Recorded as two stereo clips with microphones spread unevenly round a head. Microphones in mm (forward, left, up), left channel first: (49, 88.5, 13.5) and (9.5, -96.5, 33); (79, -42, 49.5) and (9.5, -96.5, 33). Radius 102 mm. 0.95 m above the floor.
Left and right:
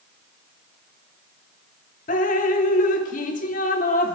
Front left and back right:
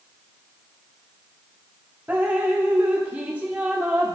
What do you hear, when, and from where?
2.1 s dripping: 135° left, 0.9 m